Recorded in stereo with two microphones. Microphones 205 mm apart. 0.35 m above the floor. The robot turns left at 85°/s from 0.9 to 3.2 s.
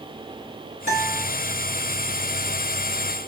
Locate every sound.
0.9 s a guitar: 85° left, 2 m; by 1.3 s 55° left, 2 m